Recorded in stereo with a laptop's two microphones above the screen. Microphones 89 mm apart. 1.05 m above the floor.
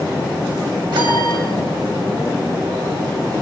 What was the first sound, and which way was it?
A piano, 65° right (ahead or behind).